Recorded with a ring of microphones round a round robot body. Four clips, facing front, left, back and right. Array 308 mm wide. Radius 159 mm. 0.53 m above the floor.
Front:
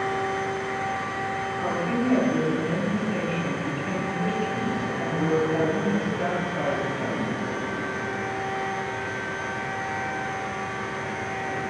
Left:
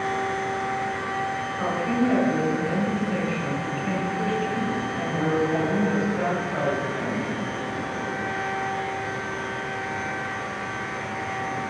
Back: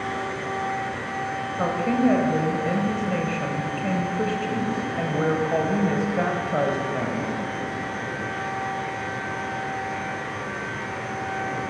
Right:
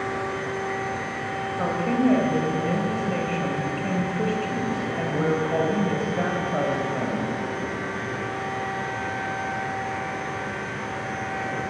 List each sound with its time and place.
1.6 s a woman speaking: 160° right, 2.5 m